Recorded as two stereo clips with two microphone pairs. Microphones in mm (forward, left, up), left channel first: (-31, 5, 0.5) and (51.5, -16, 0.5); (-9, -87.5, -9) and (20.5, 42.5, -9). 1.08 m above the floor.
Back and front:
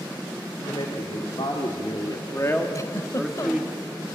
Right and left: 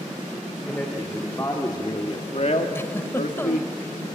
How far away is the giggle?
About 1.0 m.